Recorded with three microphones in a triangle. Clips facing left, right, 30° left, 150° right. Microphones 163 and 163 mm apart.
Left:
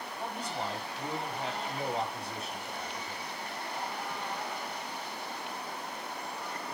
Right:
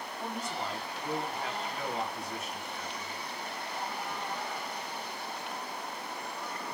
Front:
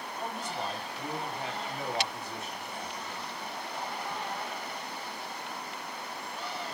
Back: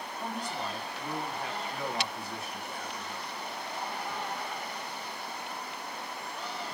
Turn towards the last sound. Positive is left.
turn(degrees=80)